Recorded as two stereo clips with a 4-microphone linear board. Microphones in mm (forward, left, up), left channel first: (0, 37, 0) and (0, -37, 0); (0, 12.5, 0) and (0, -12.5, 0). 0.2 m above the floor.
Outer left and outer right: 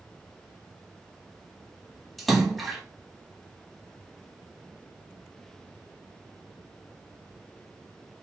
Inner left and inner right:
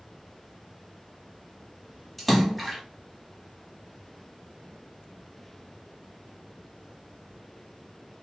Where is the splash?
Centre (ahead or behind), 1.0 m.